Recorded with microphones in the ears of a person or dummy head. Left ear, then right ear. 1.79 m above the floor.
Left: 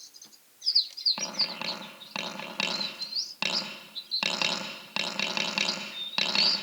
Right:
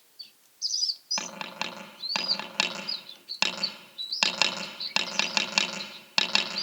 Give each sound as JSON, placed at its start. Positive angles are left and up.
{"t": 1.2, "sound": "tapping", "side_deg": -50, "distance_m": 8.0}